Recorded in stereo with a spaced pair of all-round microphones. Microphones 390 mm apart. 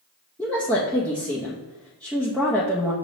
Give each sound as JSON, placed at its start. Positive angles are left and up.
{"t": 0.4, "sound": "a woman speaking", "side_deg": 5, "distance_m": 0.6}